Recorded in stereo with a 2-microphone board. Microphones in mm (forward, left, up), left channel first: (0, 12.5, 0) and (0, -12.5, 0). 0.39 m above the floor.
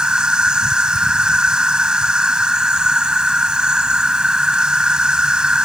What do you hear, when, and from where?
0.0 s an insect: 35° right (ahead or behind)